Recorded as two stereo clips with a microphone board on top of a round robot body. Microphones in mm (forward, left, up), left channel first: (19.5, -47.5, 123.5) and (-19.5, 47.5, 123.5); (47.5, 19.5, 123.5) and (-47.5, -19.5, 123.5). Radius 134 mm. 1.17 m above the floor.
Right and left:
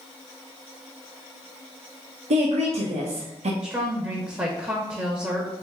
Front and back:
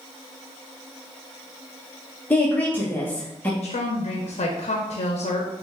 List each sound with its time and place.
2.3 s a woman speaking: 100° left, 1.0 m
3.6 s a woman speaking: 40° left, 0.8 m